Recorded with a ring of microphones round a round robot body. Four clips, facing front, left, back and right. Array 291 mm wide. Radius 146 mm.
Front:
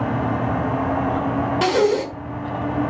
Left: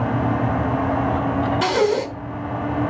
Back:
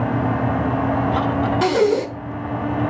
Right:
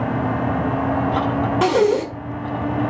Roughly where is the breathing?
Right.